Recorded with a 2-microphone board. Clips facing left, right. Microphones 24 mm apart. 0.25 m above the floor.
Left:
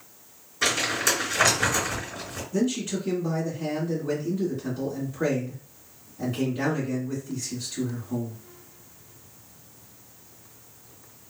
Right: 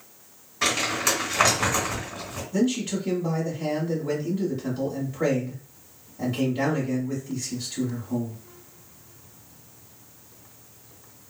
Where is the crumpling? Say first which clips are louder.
Even; 25° right (ahead or behind), 2.5 m.